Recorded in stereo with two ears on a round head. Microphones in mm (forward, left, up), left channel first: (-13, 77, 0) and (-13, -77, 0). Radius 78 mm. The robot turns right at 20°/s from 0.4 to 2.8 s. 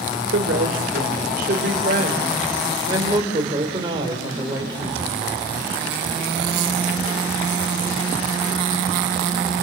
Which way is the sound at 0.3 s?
70° right.